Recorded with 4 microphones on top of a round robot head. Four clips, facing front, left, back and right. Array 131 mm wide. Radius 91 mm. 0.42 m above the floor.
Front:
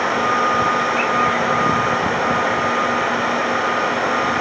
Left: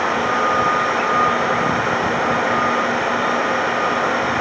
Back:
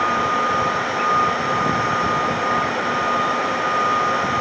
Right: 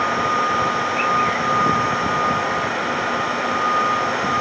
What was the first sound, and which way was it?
Only background noise.